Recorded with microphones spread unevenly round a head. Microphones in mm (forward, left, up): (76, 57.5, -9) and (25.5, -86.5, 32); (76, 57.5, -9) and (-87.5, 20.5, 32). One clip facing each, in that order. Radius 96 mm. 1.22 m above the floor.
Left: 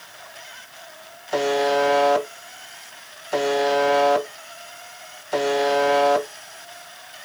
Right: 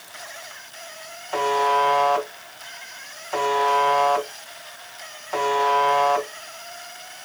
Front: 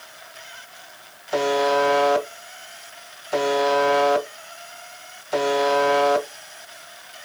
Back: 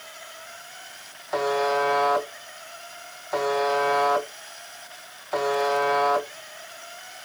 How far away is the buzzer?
About 0.8 m.